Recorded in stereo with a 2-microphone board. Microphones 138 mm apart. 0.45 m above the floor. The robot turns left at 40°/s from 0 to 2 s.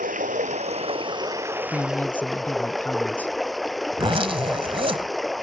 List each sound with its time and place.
0.0 s running water: 100° right; by 5.4 s straight behind
1.7 s a man speaking: 25° left (ahead or behind); by 3.4 s 10° left (ahead or behind)
3.9 s a zipper: 40° right (ahead or behind)